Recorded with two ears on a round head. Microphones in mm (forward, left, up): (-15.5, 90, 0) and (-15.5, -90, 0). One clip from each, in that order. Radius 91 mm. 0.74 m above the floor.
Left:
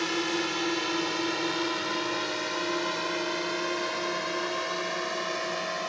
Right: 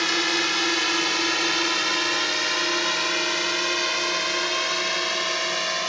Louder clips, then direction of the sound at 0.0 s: Right 7 dB; 55° right (ahead or behind).